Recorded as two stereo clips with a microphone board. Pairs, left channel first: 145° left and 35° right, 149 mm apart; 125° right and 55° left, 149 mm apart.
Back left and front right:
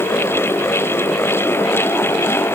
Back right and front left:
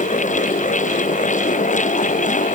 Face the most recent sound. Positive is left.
No sound to turn to.